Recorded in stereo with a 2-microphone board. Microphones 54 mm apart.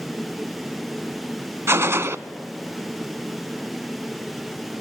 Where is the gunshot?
55° right (ahead or behind), 0.5 m.